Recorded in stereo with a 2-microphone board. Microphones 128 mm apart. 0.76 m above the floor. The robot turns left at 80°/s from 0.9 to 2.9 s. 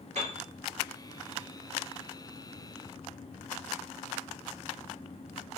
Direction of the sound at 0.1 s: 60° right (ahead or behind).